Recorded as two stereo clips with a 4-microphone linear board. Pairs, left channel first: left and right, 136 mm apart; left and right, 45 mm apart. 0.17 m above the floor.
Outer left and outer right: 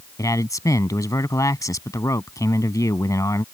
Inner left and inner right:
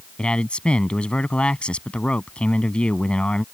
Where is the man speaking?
25° left (ahead or behind).